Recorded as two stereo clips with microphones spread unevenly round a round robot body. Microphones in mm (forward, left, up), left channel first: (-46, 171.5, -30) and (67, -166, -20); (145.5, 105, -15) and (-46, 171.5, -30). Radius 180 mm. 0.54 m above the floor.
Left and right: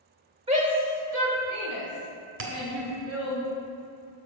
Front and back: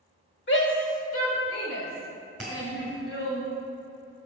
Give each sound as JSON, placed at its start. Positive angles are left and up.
{"t": 0.5, "sound": "a shout", "azimuth_deg": 0, "distance_m": 1.6}
{"t": 2.4, "sound": "a bell", "azimuth_deg": -110, "distance_m": 1.4}